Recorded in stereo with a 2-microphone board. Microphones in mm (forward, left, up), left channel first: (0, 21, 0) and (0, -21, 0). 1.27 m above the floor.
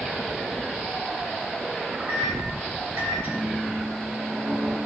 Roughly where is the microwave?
Right.